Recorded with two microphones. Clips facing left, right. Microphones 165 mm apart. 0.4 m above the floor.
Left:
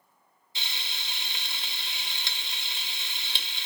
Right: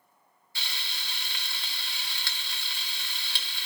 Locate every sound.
0.6 s frying: 20° left (ahead or behind), 1.2 m